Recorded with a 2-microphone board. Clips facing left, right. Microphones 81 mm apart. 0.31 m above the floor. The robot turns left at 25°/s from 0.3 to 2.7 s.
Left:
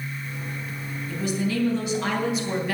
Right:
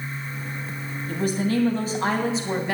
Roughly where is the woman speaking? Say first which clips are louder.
Right 3 dB; right.